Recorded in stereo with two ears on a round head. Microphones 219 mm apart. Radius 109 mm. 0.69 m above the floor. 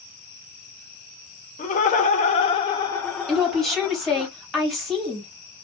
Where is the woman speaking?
Centre (ahead or behind), 1.8 m.